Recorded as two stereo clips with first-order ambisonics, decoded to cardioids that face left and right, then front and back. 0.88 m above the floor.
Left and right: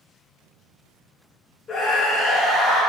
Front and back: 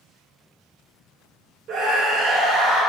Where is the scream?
155° left, 1.5 m; by 2.8 s 150° right, 2.5 m.